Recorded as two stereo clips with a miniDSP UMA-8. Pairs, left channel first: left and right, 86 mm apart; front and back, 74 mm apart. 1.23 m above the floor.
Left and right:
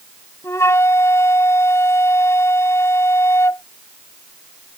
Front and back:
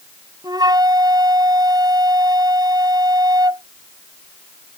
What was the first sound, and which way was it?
A flute, 150° left.